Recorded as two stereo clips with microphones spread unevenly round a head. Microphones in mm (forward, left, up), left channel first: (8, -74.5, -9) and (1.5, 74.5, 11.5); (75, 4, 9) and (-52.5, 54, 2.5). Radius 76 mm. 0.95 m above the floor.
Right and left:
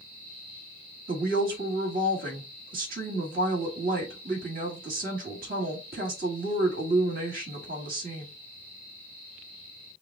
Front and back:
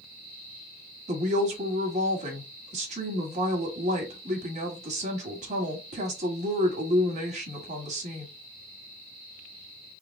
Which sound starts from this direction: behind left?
A woman speaking, at 1.1 s.